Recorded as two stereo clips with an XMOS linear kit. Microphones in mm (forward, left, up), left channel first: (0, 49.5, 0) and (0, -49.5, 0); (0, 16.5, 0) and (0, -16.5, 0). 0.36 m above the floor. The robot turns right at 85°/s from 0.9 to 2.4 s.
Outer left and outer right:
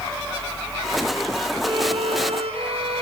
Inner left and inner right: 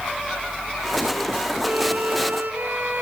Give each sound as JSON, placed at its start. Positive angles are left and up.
{"t": 1.6, "sound": "a violin", "azimuth_deg": -140, "distance_m": 1.6}